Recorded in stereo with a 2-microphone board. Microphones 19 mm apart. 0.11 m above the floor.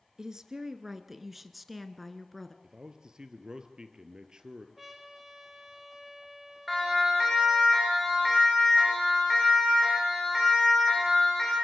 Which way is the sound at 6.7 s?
Centre (ahead or behind).